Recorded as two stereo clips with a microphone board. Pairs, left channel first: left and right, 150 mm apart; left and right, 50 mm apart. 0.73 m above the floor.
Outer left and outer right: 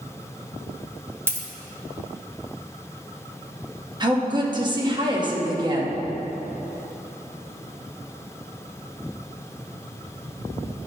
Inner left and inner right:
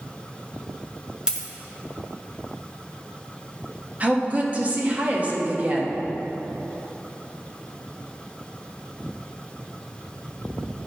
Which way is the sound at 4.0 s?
30° right (ahead or behind).